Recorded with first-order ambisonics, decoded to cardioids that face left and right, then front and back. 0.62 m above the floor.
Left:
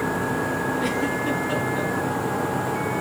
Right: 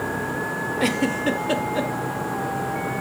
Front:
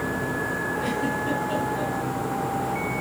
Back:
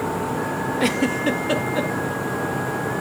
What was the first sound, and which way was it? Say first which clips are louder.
A giggle: right 2 dB, back 5 dB; 145° right.